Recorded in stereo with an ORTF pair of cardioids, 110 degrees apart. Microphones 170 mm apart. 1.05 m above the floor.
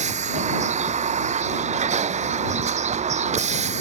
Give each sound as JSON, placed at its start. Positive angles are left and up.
{"t": 0.0, "sound": "a vehicle", "azimuth_deg": -40}